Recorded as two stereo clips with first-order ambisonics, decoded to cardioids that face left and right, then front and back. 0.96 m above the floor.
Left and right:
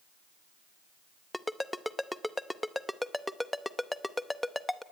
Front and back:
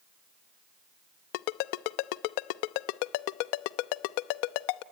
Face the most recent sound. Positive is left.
turn(degrees=5)